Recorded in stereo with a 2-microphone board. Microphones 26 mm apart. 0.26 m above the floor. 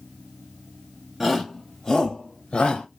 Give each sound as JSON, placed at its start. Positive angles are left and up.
{"t": 1.2, "sound": "a shout", "side_deg": -10, "distance_m": 1.2}